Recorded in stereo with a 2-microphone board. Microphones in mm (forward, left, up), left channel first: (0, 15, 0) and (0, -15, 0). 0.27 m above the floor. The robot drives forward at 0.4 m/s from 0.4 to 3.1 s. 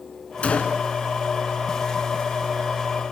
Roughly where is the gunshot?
Left.